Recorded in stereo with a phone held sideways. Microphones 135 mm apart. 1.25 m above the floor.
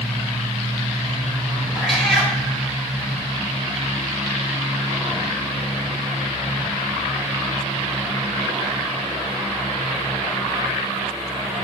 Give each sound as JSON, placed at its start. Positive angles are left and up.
{"t": 1.8, "sound": "a cat meowing", "side_deg": 0, "distance_m": 1.2}